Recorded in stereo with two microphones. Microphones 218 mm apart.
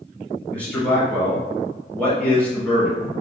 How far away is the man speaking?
About 1.8 m.